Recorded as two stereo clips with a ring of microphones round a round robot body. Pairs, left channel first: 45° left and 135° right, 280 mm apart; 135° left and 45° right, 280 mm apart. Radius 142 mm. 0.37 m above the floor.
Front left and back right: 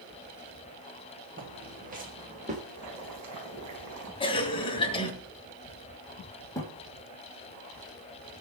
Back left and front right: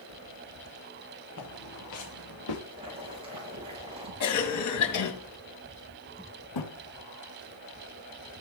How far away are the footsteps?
About 4.5 m.